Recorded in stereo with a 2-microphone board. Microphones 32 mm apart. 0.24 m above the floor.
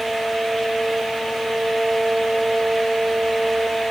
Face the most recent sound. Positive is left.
No sound to turn to.